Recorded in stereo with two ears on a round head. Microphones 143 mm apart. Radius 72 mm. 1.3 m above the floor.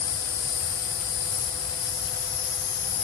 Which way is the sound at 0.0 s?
75° left (ahead or behind).